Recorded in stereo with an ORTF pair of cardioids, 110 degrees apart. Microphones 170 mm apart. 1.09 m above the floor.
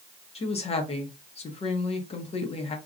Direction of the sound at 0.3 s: 35° left.